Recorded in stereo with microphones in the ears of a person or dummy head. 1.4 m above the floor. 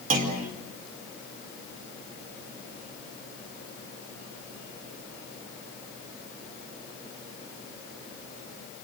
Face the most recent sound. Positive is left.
turn(degrees=-40)  # may be behind; listen again after turning